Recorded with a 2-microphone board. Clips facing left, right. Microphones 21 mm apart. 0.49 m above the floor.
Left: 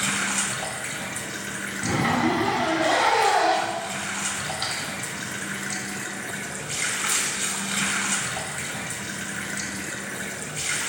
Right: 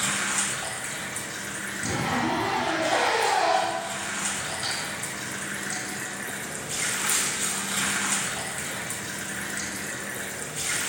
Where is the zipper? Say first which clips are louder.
Left 4 dB; 65° left (ahead or behind), 4.5 m.